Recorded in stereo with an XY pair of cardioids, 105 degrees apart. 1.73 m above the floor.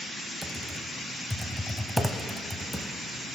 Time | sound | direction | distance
0.4 | typing on a keyboard | 5° right | 0.7 m